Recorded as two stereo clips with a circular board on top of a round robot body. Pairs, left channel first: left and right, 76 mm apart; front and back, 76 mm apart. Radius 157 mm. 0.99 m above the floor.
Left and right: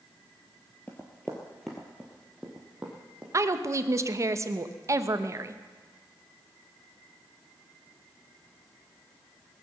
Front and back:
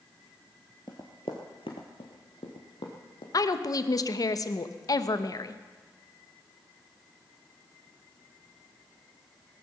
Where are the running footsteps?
25° left, 1.0 m; by 3.2 s 10° right, 2 m.